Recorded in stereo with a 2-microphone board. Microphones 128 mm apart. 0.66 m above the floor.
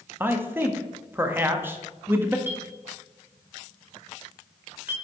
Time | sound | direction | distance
0.2 | a man speaking | 15° right (ahead or behind) | 0.7 m
2.5 | a clink | 15° right (ahead or behind) | 1.6 m